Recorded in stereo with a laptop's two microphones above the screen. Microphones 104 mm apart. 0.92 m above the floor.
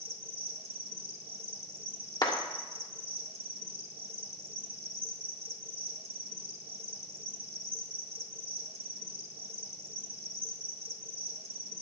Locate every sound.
0.0 s an insect: 65° right (ahead or behind), 1.2 m
2.2 s a clap: 40° left (ahead or behind), 2.5 m